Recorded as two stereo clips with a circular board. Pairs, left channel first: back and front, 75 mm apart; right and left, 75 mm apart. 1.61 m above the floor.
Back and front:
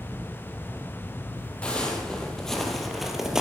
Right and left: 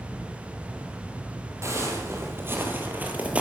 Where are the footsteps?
110° left, 2 m; by 3.4 s 65° left, 1.6 m.